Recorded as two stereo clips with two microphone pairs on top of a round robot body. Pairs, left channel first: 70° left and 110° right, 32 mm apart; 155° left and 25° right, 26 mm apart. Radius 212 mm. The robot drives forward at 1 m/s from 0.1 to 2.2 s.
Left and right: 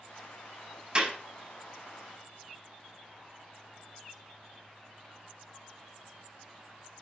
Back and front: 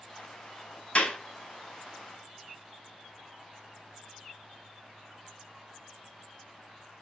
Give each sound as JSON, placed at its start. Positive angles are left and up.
{"t": 0.9, "sound": "a clap", "azimuth_deg": -165, "distance_m": 5.5}